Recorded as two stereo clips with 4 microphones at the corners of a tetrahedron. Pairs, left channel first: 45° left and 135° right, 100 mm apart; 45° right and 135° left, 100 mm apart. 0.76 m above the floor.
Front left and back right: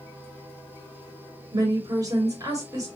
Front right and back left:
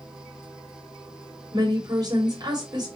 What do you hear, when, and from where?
1.5 s a woman speaking: 175° left, 2 m